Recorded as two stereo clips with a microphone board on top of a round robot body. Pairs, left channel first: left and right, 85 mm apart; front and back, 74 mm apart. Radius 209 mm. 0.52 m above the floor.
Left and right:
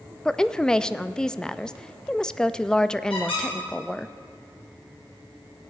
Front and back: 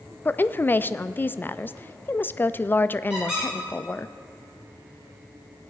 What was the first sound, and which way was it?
A woman speaking, 20° left.